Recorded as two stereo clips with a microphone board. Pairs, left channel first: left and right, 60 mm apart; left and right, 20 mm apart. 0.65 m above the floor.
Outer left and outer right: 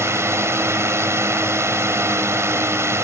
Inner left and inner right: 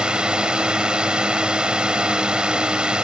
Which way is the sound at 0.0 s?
45° right (ahead or behind).